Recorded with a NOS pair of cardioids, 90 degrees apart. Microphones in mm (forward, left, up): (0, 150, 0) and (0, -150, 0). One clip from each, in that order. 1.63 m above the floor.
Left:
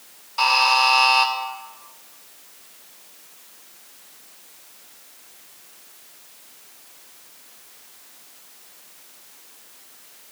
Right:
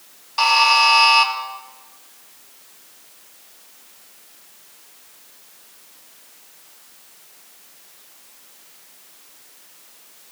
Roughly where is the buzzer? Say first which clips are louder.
Right 3 dB; ahead right.